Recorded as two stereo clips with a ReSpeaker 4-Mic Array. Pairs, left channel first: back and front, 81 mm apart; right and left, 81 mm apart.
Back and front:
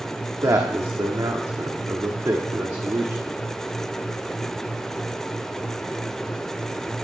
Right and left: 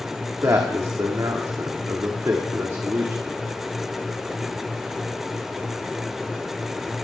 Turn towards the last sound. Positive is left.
turn(degrees=45)